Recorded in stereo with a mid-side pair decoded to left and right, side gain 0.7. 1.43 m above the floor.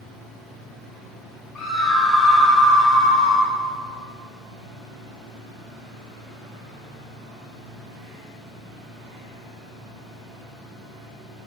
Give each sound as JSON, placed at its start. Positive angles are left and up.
{"t": 1.6, "sound": "a scream", "azimuth_deg": 15, "distance_m": 5.0}